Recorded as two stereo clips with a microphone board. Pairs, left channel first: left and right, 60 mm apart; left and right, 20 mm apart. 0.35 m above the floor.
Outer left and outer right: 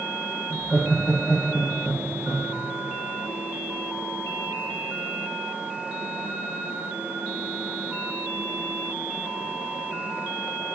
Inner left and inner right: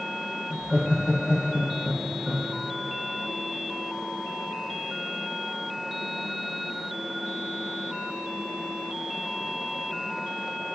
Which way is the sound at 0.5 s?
35° left (ahead or behind).